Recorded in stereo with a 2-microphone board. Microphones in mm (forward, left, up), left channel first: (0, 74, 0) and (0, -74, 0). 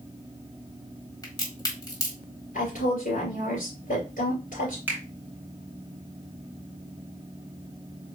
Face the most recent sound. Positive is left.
turn(degrees=-15)  # may be behind; listen again after turning